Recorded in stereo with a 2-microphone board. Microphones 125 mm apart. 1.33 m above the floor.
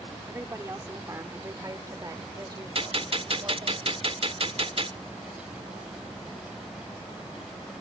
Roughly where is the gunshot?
Right.